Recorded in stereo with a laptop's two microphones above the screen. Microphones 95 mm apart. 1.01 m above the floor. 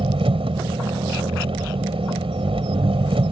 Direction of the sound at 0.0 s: 75° right (ahead or behind).